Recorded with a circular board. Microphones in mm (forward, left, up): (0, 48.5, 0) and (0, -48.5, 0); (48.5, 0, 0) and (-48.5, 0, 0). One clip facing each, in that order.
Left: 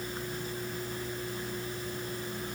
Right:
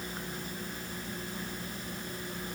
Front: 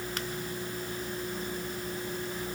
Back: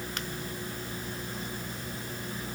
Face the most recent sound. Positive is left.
No sound to turn to.